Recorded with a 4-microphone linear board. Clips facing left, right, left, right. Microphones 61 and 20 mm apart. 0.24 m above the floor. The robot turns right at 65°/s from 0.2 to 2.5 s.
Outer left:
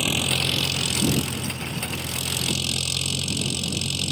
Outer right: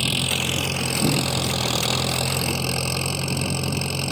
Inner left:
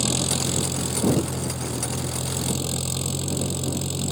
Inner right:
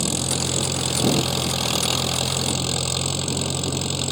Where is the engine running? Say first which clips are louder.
Even, even; 170° left; by 4.1 s 40° right.